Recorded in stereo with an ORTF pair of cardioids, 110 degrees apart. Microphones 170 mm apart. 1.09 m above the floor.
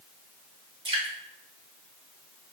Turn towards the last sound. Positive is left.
turn(degrees=-30)